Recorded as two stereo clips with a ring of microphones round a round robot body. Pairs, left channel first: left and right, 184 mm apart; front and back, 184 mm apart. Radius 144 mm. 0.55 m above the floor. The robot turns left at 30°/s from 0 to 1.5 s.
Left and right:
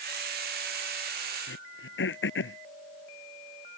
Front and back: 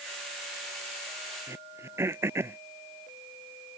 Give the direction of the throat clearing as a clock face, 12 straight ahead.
9 o'clock.